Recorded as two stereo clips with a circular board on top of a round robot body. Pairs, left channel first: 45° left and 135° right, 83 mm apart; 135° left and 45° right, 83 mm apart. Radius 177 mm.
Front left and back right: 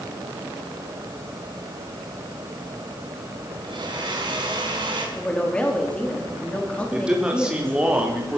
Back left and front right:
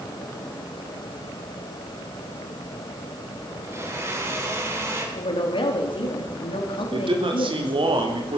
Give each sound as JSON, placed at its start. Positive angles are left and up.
{"t": 3.6, "sound": "a blender", "azimuth_deg": -105, "distance_m": 3.5}
{"t": 5.2, "sound": "a woman speaking", "azimuth_deg": 120, "distance_m": 3.5}
{"t": 6.9, "sound": "a man speaking", "azimuth_deg": -55, "distance_m": 3.5}